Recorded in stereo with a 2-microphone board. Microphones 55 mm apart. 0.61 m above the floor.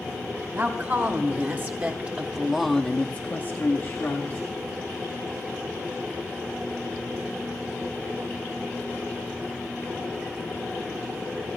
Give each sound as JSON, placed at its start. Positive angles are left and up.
{"t": 0.6, "sound": "a woman speaking", "side_deg": -45, "distance_m": 1.8}